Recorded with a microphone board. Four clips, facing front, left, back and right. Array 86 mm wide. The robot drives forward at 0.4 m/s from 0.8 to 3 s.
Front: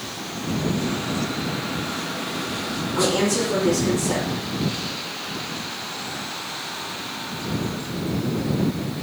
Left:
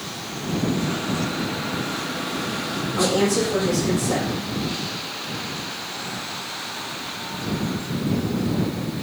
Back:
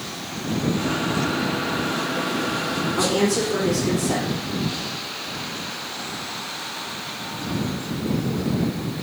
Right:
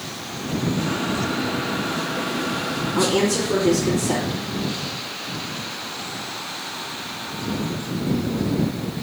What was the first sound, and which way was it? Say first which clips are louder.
A woman speaking: even, front 1 dB; 85° right.